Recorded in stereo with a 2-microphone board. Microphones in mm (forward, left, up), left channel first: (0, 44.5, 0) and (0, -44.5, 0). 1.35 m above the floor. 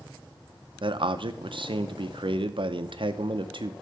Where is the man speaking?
60° right (ahead or behind), 0.6 m.